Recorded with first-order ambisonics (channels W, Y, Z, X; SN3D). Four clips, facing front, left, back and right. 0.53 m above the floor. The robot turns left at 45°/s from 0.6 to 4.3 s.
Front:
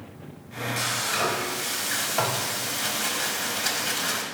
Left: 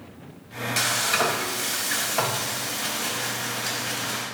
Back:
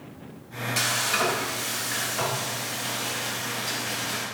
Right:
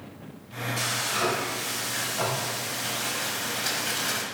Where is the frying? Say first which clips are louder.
Left 5 dB, back 2 dB; 110° left, 1.2 m; by 4.2 s 45° right, 1.2 m.